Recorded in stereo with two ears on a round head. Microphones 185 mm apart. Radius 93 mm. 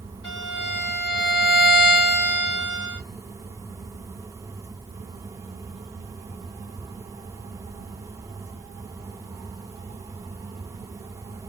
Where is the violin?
25° left (ahead or behind), 1.7 m.